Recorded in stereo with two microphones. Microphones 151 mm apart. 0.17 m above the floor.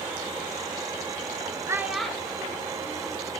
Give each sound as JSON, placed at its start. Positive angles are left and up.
{"t": 1.7, "sound": "a child speaking", "side_deg": -20, "distance_m": 1.3}